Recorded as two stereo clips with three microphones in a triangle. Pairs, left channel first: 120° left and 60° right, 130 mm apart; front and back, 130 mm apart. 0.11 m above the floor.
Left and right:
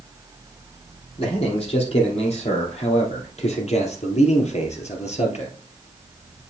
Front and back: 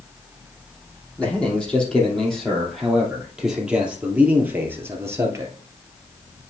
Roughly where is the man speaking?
Left.